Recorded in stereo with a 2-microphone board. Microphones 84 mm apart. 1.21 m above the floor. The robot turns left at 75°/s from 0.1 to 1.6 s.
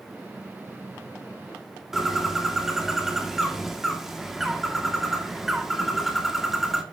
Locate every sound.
1.9 s a bird: 5° right (ahead or behind), 1.8 m